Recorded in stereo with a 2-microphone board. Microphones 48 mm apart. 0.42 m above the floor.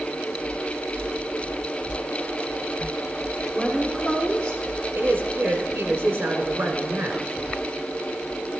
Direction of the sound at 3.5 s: 5° right (ahead or behind).